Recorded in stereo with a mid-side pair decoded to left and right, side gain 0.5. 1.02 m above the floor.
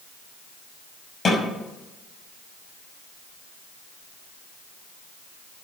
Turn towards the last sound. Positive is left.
turn(degrees=30)